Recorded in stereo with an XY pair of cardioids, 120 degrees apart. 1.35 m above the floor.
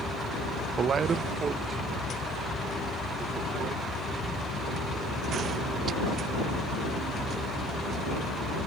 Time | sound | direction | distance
0.8 | a man speaking | 40° right | ?